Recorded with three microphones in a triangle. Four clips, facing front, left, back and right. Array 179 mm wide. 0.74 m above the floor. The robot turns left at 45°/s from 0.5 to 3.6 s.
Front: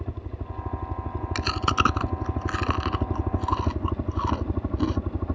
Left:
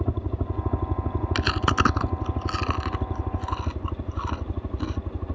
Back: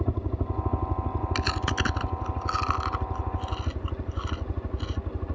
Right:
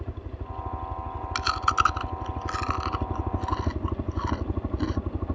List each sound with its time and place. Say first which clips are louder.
0.0 s a helicopter: left 10 dB, back 7 dB; 120° left; by 5.4 s 25° right
1.4 s chewing: right 1 dB, front 8 dB; 95° left; by 5.0 s 10° right